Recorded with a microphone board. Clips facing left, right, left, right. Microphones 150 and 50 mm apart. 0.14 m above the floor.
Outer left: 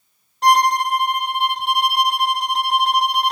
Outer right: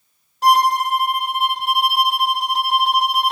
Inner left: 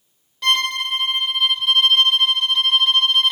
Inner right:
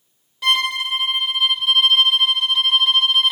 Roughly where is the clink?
I don't hear a clink.